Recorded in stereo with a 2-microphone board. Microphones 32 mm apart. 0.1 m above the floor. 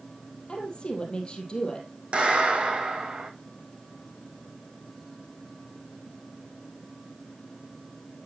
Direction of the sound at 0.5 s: 35° left (ahead or behind).